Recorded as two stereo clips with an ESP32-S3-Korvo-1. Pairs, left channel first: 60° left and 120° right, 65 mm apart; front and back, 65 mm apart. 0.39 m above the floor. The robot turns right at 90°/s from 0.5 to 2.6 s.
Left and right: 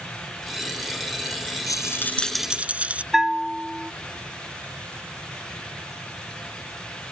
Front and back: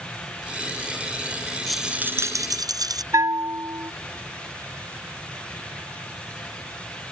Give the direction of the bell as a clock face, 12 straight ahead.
7 o'clock.